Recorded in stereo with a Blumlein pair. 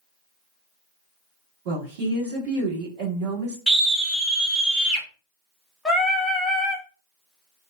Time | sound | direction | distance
1.6 | a woman speaking | 50° right | 1.8 m
3.7 | a scream | 15° right | 1.4 m
5.8 | singing | 10° left | 0.8 m